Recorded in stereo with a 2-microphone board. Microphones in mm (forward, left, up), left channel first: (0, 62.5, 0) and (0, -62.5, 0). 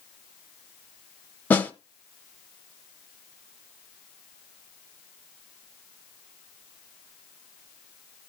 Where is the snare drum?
15° left (ahead or behind), 0.8 m.